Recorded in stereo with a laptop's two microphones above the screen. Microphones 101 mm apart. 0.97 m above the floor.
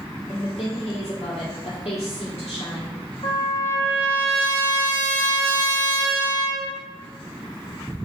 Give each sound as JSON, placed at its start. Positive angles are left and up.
{"t": 0.3, "sound": "a woman speaking", "side_deg": 80, "distance_m": 1.9}
{"t": 3.2, "sound": "a trumpet", "side_deg": 65, "distance_m": 1.6}